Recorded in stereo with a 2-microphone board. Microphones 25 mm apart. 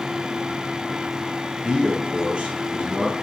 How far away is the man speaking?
About 2.5 m.